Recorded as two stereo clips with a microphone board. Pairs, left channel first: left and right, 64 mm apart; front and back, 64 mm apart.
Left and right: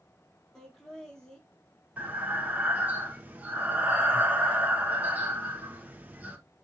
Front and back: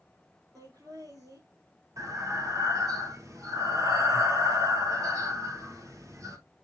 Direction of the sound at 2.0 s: 155° right.